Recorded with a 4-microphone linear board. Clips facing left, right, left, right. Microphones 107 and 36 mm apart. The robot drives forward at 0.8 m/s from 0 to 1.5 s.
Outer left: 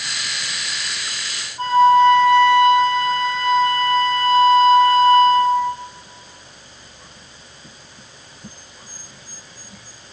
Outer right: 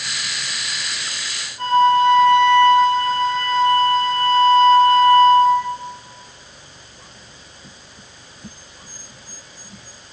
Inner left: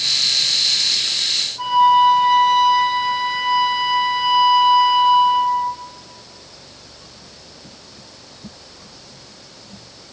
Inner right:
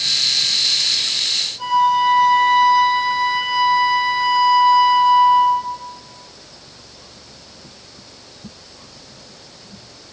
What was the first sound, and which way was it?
A flute, 35° left (ahead or behind).